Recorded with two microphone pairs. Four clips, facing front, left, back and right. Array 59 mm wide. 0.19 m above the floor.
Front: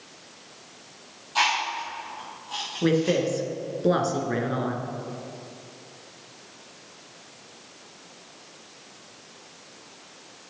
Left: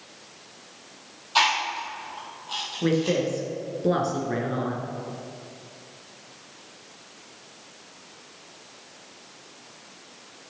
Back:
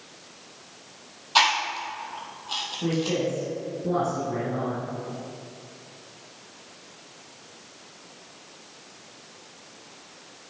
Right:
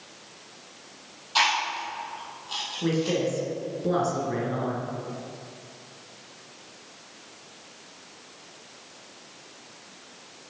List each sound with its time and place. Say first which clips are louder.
1.4 s chewing: left 1 dB, back 2 dB; 155° left, 3.5 m
2.8 s a woman speaking: left 2 dB, front 4 dB; 20° left, 2.5 m